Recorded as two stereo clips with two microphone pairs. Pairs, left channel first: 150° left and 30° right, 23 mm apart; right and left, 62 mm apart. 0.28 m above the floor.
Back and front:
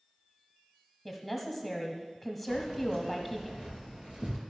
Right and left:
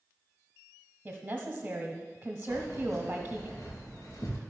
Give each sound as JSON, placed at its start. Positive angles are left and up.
{"t": 1.1, "sound": "a woman speaking", "azimuth_deg": 55, "distance_m": 1.1}
{"t": 2.5, "sound": "keys jangling", "azimuth_deg": -75, "distance_m": 3.0}